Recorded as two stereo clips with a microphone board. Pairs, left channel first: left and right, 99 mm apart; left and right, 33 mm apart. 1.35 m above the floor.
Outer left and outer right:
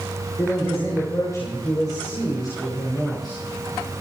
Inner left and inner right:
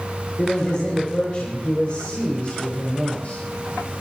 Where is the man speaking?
30° left (ahead or behind), 5.5 m; by 3.4 s 45° left (ahead or behind), 5.5 m.